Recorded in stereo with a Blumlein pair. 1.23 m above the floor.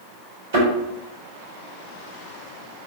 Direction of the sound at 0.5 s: 55° right.